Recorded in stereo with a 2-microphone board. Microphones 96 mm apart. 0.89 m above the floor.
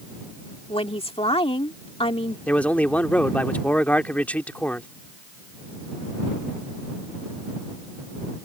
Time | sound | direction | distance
0.7 | a woman speaking | 80° left | ?
2.5 | a man speaking | 15° left (ahead or behind) | ?